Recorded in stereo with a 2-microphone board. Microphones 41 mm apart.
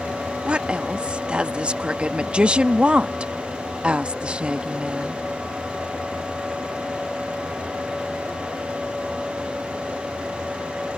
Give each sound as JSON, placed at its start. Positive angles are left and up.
{"t": 0.5, "sound": "a woman speaking", "side_deg": -25}